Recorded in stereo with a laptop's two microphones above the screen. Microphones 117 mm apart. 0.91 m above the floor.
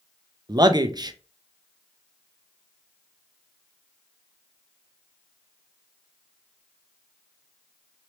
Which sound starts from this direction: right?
A man speaking, at 0.5 s.